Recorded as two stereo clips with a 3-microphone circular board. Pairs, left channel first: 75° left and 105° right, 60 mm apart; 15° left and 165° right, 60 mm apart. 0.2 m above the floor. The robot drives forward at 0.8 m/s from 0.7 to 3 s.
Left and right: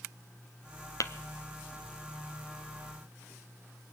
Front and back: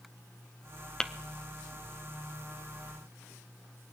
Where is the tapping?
95° left, 0.6 m; by 1.1 s 105° left, 0.6 m.